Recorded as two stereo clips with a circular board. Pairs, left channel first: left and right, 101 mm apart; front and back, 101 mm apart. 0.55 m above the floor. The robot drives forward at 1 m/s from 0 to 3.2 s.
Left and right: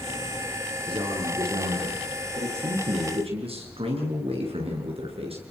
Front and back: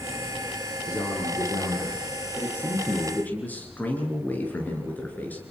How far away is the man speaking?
About 8.5 m.